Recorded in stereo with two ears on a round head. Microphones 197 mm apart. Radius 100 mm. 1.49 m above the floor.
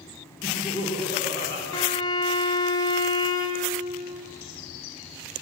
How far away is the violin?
About 0.7 m.